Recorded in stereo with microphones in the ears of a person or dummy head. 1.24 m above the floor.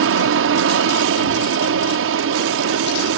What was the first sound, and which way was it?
An aircraft, 70° right (ahead or behind).